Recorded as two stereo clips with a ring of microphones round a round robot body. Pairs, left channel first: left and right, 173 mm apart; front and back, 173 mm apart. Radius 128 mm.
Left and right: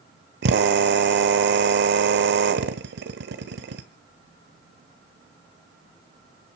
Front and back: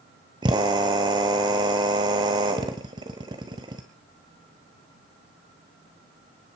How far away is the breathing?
I don't hear breathing.